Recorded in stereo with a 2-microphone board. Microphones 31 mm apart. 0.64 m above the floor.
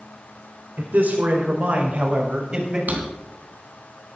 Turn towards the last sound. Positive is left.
turn(degrees=-55)  # may be behind; listen again after turning